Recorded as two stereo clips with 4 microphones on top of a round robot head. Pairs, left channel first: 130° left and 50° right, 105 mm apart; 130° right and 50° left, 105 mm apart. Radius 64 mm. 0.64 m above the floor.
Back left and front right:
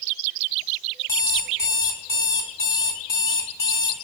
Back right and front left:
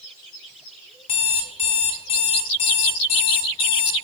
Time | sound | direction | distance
1.1 | an alarm clock | 165° right | 1.0 m